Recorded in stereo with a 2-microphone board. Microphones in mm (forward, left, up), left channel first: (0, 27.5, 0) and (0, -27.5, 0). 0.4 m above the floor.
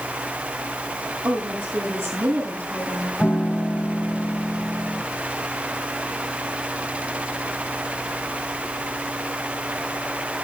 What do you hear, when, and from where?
1.2 s a woman speaking: 50° right (ahead or behind), 9.5 m
3.2 s a piano: 25° left (ahead or behind), 1.2 m